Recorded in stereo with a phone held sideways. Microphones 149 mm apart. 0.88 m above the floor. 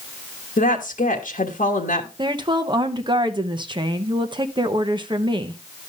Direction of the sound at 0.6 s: 65° left (ahead or behind).